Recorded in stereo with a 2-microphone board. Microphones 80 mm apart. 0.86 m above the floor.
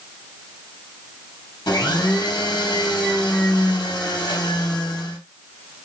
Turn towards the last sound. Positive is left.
turn(degrees=60)  # may be behind; listen again after turning